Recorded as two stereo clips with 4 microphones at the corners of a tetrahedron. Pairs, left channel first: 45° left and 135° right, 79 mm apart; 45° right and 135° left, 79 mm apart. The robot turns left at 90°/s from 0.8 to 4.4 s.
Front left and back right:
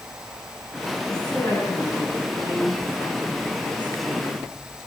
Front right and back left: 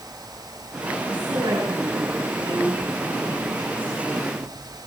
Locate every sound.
1.1 s a woman speaking: 135° left, 9.5 m; by 4.5 s 165° right, 9.5 m